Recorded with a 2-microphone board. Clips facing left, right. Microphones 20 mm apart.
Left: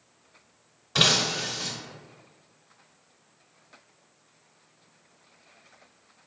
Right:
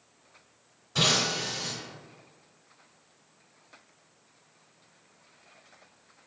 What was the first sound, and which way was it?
Breaking glass, 45° left (ahead or behind).